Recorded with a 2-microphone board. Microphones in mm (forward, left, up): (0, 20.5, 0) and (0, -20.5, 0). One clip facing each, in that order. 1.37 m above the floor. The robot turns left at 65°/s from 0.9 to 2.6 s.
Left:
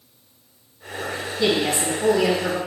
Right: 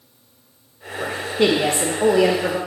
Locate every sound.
1.0 s a woman speaking: 45° right, 0.5 m; by 2.6 s 145° right, 0.5 m